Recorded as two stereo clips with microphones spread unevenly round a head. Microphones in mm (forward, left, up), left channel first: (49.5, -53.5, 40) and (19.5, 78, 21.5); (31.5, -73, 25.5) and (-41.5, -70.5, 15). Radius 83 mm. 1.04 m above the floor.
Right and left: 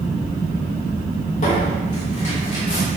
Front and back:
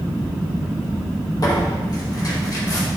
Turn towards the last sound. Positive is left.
turn(degrees=-40)